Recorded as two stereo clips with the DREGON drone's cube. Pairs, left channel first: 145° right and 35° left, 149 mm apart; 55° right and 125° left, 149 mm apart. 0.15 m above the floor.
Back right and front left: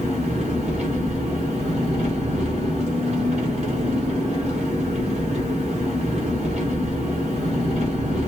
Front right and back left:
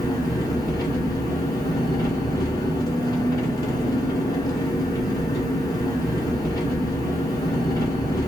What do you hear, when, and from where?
0.0 s an engine running: 5° left, 1.6 m